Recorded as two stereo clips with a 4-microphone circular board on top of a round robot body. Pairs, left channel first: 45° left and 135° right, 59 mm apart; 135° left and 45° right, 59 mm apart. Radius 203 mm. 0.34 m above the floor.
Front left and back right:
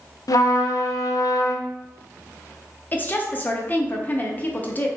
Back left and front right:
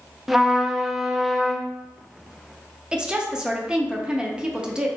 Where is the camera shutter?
No camera shutter in this recording.